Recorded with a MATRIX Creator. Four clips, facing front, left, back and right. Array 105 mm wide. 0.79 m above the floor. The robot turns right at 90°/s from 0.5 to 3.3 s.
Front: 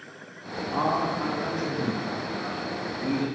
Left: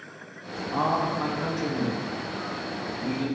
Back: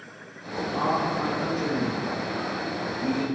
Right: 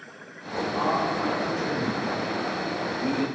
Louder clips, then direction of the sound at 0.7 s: Left 1 dB, even; 40° left.